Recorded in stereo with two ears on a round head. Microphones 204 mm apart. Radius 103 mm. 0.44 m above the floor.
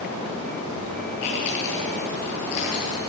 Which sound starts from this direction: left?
Chewing, at 1.2 s.